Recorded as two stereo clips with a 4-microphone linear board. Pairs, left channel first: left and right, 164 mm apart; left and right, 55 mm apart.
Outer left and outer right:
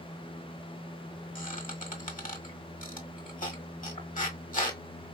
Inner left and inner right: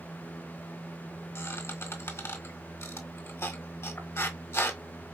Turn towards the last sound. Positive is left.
turn(degrees=50)  # may be behind; listen again after turning